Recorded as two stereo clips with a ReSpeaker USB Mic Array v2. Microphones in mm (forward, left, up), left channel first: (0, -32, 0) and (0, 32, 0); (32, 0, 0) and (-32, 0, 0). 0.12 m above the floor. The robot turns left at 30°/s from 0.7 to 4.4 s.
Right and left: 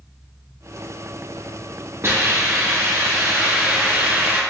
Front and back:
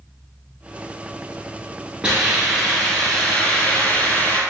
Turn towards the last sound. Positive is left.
turn(degrees=35)